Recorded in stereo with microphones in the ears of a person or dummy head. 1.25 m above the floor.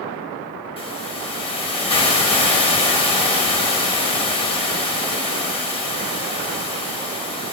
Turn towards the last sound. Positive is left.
turn(degrees=25)  # may be behind; listen again after turning